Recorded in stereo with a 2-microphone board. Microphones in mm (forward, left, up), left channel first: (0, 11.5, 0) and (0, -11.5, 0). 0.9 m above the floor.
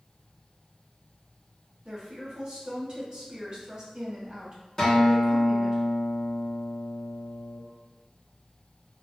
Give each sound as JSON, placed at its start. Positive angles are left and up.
{"t": 1.9, "sound": "a woman speaking", "side_deg": -40, "distance_m": 0.9}
{"t": 4.8, "sound": "a guitar", "side_deg": 20, "distance_m": 1.0}